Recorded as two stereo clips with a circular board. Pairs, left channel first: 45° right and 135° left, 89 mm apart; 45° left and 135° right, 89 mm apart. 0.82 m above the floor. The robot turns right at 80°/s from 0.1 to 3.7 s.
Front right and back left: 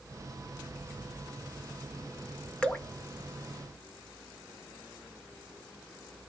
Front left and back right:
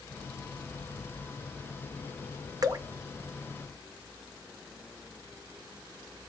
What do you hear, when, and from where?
2.6 s dripping: 120° right, 0.6 m; by 2.9 s 105° right, 0.6 m